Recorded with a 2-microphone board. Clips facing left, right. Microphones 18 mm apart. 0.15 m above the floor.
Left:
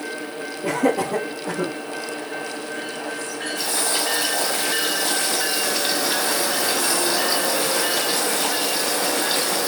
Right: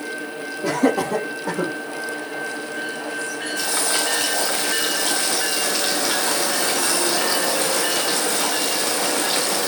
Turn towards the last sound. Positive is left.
turn(degrees=-60)  # may be behind; listen again after turning